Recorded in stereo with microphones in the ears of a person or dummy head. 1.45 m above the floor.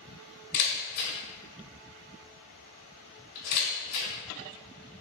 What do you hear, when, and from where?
0.5 s a camera shutter: 35° left (ahead or behind), 1.2 m